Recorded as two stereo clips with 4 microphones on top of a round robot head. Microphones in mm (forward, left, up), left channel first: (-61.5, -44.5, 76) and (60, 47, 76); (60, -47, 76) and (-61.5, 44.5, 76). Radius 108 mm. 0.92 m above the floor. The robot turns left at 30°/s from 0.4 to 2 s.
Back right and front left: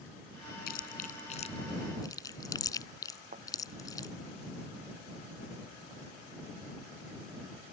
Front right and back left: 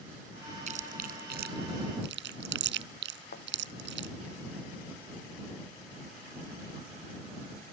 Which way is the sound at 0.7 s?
170° right.